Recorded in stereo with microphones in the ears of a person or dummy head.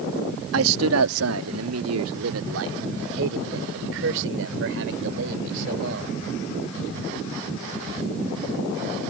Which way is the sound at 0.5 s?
85° right.